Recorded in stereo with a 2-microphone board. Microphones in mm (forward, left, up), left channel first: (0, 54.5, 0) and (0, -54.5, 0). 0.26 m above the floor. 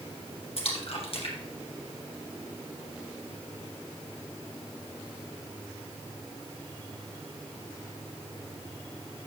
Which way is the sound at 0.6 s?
55° left (ahead or behind).